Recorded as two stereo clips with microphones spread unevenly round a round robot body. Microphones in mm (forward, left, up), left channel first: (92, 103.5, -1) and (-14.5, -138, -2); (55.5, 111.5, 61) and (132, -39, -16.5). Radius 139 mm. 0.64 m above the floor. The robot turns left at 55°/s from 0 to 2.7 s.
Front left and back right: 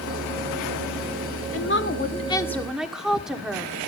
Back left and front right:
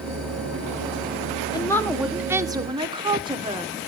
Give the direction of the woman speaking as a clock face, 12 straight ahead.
11 o'clock.